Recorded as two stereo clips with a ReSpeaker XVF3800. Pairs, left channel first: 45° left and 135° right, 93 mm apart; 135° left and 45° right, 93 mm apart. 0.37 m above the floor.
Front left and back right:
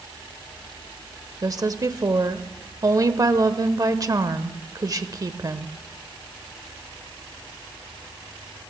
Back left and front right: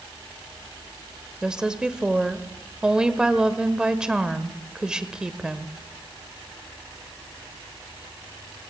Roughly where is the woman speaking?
Behind right.